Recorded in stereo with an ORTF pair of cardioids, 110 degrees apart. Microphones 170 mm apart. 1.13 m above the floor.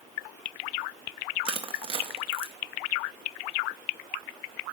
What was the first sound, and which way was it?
Crushing, 35° right.